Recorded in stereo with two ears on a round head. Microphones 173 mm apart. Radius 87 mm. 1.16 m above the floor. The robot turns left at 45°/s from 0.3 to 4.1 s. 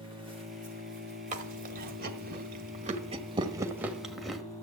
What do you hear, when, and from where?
0.0 s an engine running: 30° right, 2.5 m; by 4.6 s 160° left, 2.5 m
1.3 s chewing: 40° right (ahead or behind), 1.2 m; by 4.4 s centre (ahead or behind), 1.2 m